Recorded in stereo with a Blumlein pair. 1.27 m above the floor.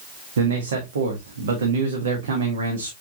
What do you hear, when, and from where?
0.4 s a man speaking: 65° right, 1.7 m